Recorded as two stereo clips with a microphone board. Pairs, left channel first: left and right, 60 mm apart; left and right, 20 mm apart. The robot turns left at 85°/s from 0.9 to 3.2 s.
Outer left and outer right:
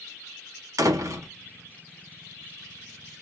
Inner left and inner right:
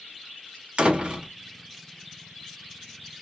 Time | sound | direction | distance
0.8 | a door slam | 95° right | 1.1 m